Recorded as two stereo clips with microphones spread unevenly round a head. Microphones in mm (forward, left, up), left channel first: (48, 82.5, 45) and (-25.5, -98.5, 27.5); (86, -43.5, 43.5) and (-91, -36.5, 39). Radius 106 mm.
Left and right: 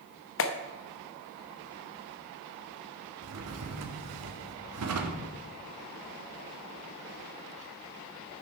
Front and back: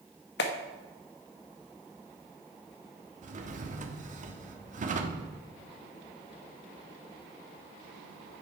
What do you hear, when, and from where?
0.4 s a clap: 40° left, 0.9 m
3.2 s a drawer: 130° right, 1.1 m